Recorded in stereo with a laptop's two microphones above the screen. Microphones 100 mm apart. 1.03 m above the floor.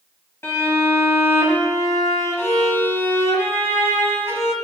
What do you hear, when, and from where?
0.4 s a violin: 25° left (ahead or behind), 1.2 m